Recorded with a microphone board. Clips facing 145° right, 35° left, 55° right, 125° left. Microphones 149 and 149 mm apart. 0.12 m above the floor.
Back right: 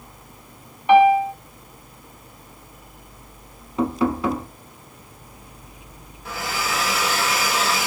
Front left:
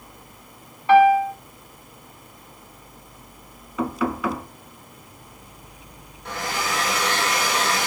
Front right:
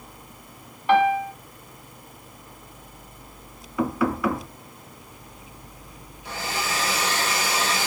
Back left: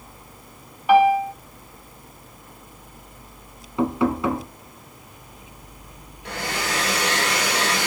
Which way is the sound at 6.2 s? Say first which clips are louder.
Even, back left 2 dB; 125° left.